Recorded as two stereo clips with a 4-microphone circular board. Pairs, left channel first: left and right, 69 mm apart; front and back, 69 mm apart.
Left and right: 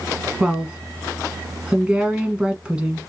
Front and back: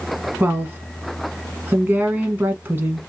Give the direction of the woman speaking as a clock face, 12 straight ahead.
5 o'clock.